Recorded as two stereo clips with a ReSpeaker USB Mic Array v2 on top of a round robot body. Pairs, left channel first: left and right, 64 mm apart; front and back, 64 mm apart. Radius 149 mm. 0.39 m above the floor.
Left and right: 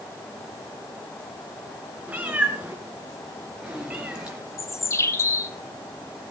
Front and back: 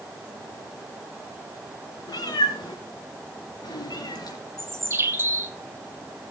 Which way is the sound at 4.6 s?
130° left.